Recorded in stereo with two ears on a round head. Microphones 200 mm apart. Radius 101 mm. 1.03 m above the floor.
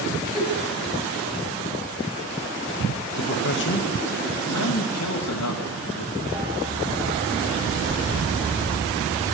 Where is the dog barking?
15° right (ahead or behind), 6 m.